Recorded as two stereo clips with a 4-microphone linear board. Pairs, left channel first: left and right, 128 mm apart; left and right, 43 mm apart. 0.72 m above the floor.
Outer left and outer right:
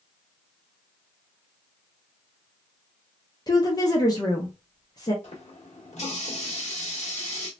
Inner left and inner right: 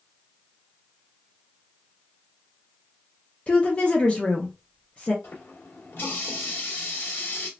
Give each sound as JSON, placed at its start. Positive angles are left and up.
{"t": 3.5, "sound": "a woman speaking", "side_deg": 30, "distance_m": 0.6}
{"t": 5.2, "sound": "a running tap", "side_deg": 60, "distance_m": 1.2}